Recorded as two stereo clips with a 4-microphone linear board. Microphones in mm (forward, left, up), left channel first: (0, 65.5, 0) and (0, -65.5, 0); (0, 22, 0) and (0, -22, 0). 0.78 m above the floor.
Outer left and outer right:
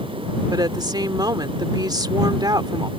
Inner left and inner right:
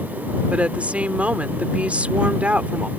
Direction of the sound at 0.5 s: 30° right (ahead or behind).